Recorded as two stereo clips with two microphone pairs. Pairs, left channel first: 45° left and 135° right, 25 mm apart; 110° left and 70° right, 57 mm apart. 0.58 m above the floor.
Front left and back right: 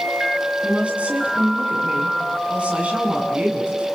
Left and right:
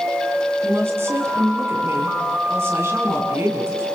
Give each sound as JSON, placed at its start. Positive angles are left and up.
{"t": 0.6, "sound": "a woman speaking", "azimuth_deg": -110, "distance_m": 7.0}